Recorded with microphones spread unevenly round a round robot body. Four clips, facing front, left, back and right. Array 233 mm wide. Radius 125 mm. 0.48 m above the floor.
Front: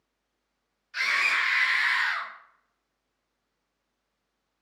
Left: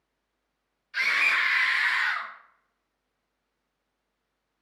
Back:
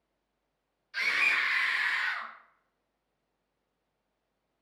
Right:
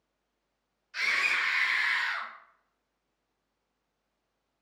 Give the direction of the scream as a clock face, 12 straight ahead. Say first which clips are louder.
Left 4 dB, front 3 dB; 7 o'clock.